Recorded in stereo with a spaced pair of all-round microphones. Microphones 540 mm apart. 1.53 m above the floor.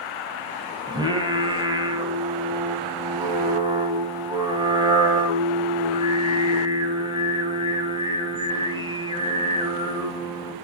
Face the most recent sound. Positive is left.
turn(degrees=-10)  # may be behind; listen again after turning